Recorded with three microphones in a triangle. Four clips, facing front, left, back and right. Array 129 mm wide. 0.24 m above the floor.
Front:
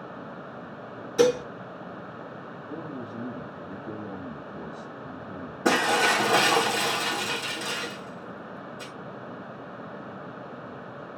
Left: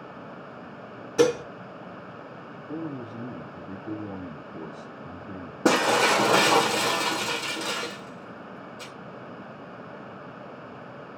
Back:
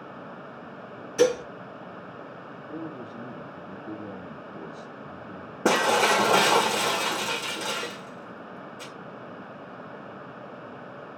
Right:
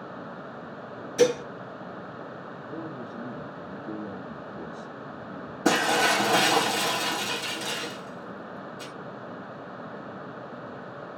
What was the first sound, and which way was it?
Dishes clattering, 65° left.